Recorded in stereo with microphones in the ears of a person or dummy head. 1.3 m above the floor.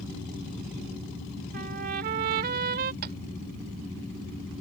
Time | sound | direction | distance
1.5 | a trumpet | 45° right (ahead or behind) | ?
3.0 | tapping | 50° right (ahead or behind) | ?